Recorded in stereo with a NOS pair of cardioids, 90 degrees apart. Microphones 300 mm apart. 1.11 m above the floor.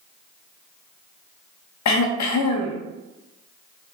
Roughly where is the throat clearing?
Ahead left.